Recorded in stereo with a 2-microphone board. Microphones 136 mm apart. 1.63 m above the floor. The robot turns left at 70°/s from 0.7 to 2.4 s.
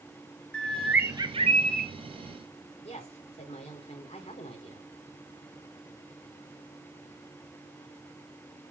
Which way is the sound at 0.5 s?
5° left.